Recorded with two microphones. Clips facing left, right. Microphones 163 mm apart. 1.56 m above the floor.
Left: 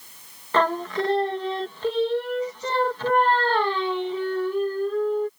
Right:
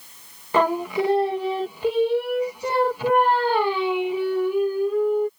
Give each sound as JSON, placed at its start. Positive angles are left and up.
{"t": 0.5, "sound": "singing", "side_deg": -10}